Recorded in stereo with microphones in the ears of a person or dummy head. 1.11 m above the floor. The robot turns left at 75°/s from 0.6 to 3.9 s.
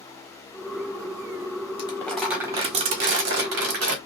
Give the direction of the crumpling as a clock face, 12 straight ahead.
11 o'clock.